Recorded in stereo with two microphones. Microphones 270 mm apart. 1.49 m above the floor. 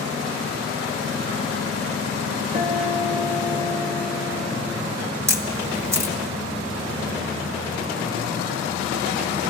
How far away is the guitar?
About 1.9 m.